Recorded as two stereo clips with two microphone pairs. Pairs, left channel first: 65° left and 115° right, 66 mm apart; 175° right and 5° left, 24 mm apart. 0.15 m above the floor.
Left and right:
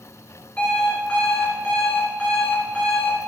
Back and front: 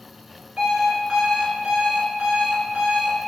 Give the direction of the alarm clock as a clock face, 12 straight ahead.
12 o'clock.